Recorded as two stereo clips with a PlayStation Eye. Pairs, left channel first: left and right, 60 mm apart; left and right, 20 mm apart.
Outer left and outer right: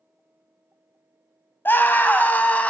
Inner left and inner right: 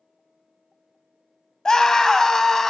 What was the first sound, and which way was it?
A scream, 35° left (ahead or behind).